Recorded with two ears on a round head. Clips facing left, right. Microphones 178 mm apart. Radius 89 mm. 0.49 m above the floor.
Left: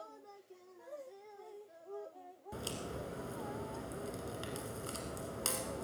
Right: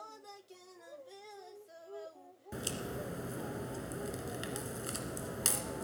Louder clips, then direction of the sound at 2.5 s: Right 3 dB; 20° right (ahead or behind).